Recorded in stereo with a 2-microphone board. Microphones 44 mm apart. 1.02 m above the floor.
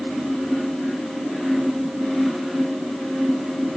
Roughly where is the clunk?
No clunk in this recording.